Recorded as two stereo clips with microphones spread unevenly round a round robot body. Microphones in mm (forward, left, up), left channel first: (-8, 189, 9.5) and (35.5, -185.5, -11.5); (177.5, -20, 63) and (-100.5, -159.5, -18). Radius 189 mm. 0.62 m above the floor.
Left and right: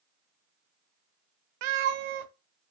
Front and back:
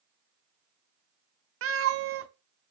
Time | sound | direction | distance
1.6 | a cat meowing | 105° right | 0.6 m